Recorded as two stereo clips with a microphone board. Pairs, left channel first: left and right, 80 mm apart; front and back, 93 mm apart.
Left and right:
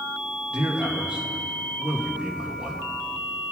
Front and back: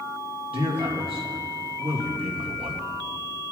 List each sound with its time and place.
0.5 s a man speaking: 165° right, 2.5 m